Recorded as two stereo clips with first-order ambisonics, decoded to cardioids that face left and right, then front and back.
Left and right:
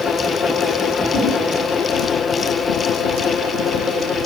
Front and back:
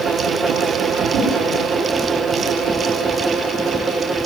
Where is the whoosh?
135° left, 7.5 m.